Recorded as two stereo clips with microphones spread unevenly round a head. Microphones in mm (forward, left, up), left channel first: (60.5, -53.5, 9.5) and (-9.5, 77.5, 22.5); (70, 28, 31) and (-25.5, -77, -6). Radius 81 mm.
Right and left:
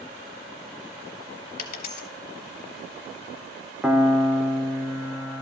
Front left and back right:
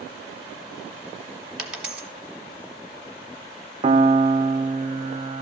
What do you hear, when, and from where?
1.6 s a dropped coin: 35° right, 1.5 m
3.8 s a piano: 155° right, 0.6 m